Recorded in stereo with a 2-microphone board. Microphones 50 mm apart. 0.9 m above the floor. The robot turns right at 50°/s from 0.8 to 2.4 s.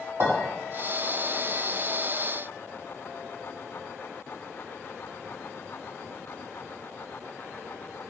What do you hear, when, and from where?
0.2 s a clink: 60° right (ahead or behind), 1.8 m